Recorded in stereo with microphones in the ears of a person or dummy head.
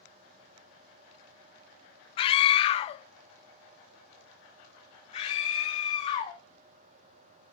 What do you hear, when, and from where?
2.2 s a scream: 30° left (ahead or behind), 0.6 m; by 6.4 s 40° left (ahead or behind), 3 m